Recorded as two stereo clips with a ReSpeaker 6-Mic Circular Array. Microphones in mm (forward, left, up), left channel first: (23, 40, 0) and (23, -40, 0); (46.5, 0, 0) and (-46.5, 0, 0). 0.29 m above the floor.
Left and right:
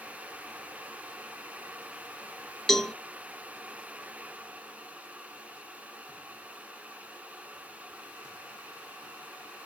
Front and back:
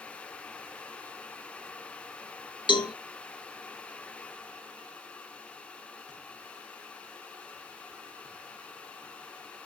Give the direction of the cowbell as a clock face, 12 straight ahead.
12 o'clock.